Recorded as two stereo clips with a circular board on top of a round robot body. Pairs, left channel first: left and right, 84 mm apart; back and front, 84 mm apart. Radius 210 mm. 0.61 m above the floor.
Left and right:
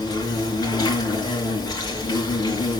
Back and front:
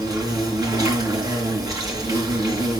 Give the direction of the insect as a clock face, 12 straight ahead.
10 o'clock.